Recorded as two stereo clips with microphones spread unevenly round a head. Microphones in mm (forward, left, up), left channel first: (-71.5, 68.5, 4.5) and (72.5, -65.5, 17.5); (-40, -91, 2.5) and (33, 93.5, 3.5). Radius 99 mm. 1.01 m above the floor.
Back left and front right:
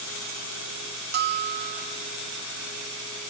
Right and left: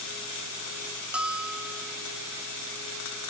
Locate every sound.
1.1 s a bell: 15° right, 0.8 m